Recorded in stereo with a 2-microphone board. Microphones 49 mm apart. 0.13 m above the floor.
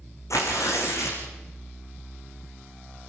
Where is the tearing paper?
80° left, 4 m.